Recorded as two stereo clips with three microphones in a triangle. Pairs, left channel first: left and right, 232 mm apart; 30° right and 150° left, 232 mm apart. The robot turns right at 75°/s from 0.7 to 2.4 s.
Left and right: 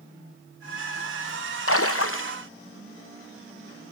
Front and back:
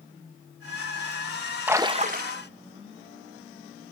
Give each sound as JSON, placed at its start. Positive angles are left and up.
{"t": 1.7, "sound": "a splash", "azimuth_deg": 70, "distance_m": 0.6}